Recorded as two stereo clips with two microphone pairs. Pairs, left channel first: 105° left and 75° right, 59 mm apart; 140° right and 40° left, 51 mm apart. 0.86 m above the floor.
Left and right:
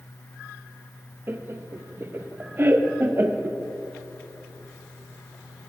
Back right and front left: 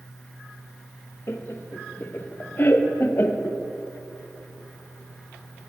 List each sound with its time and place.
1.3 s laughter: 110° right, 0.5 m